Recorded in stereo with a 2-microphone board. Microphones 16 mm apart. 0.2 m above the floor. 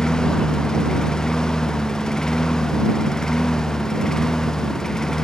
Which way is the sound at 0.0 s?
40° left (ahead or behind).